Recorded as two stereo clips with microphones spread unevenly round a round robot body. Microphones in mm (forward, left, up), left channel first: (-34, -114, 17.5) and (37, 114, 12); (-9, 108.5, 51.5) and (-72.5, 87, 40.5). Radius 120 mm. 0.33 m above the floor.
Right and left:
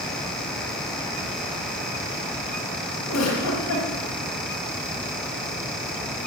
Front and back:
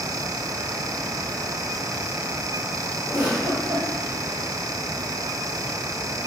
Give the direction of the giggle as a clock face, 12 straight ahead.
3 o'clock.